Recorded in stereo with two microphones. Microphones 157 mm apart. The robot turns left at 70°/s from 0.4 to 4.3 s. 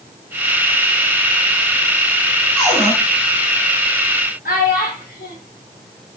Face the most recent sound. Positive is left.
turn(degrees=70)  # may be behind; listen again after turning